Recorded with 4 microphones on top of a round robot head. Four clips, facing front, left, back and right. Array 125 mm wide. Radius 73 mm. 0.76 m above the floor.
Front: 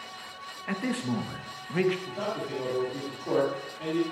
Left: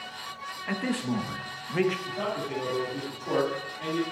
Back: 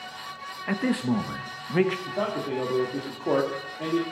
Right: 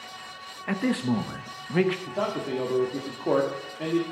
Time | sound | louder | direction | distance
0.7 | a man speaking | right 4 dB, back 5 dB | 145° right | 1.0 m
2.1 | a man speaking | right 3 dB, back 4 dB | 135° right | 1.8 m